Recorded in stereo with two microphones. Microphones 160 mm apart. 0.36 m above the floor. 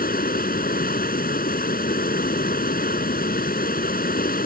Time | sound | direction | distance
0.0 | running water | 70° left (ahead or behind) | ?